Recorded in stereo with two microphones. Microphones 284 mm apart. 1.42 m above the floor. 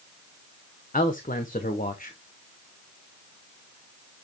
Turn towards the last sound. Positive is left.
turn(degrees=30)  # may be behind; listen again after turning